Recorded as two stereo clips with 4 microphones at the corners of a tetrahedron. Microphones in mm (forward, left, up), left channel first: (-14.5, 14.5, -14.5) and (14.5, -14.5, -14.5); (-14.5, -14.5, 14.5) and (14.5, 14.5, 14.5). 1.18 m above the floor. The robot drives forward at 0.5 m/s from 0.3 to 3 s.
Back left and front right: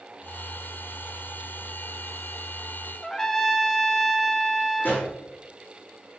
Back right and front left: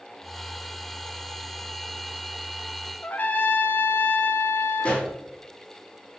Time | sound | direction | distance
3.0 | a trumpet | 145° right | 0.6 m
4.8 | a pop | 170° left | 3 m